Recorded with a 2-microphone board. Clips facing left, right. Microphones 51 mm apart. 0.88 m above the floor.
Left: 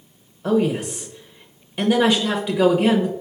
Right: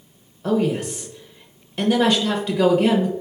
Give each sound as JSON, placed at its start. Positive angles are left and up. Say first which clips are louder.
{"t": 0.4, "sound": "a woman speaking", "louder": "left 1 dB", "side_deg": 0, "distance_m": 0.6}